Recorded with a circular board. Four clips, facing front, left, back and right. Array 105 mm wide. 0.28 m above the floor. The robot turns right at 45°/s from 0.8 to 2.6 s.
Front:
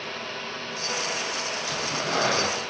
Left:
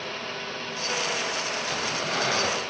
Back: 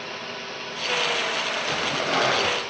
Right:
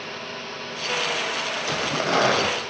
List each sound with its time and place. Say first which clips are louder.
1.7 s tearing paper: right 9 dB, back 3 dB; 115° right, 5.5 m; by 2.5 s 75° right, 5.5 m